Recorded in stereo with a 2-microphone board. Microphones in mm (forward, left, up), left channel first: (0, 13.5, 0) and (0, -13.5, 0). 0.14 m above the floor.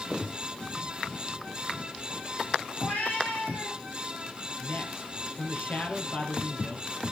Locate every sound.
2.8 s a cat meowing: 90° left, 9 m; by 3.8 s 85° left, 8 m
4.6 s a man speaking: 65° left (ahead or behind), 3.5 m